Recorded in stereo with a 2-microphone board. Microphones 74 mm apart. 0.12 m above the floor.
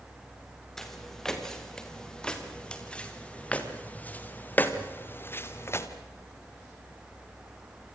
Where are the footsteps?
5° left (ahead or behind), 5.5 m; by 5.9 s 40° left (ahead or behind), 3 m.